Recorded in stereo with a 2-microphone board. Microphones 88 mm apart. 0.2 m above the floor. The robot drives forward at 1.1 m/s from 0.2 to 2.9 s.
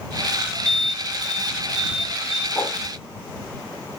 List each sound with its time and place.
0.7 s an alarm: centre (ahead or behind), 2 m
2.5 s a whoosh: 35° left (ahead or behind), 4.5 m